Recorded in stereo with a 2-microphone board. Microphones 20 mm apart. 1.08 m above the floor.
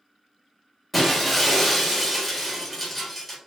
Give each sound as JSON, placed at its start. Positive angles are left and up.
{"t": 0.9, "sound": "breaking glass", "side_deg": 10, "distance_m": 1.3}